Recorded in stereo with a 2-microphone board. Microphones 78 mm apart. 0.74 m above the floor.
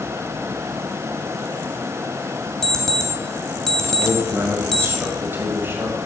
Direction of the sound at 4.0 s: 30° right (ahead or behind).